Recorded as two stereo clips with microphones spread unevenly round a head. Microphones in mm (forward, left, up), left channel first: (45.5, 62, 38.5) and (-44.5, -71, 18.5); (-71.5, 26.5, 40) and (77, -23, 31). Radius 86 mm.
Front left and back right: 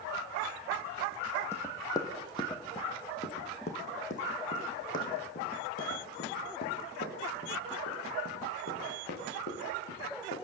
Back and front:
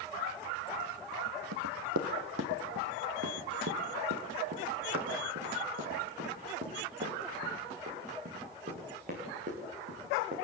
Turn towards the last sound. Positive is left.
turn(degrees=30)